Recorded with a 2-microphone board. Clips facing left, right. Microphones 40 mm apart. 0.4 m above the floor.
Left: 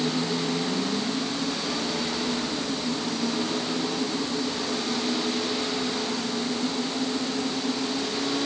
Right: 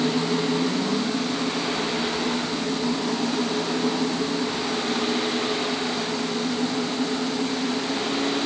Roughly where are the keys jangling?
No keys jangling in this recording.